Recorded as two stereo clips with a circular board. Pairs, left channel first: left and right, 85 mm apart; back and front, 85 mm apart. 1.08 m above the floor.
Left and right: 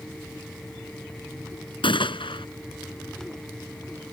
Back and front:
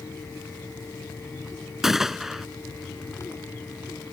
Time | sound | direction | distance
1.8 | a gunshot | 85° left | ?